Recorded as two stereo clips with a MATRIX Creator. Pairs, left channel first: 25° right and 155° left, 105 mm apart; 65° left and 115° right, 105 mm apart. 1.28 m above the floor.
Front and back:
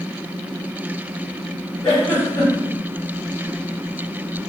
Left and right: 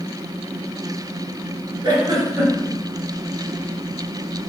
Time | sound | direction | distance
1.8 | a giggle | 65° right | 1.5 m